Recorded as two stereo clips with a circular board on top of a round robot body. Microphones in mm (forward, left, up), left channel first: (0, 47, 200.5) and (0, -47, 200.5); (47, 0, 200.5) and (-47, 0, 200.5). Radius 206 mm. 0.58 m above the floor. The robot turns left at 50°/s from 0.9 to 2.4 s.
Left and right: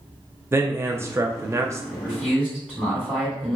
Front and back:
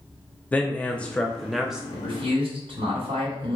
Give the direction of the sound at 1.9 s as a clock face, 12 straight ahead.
5 o'clock.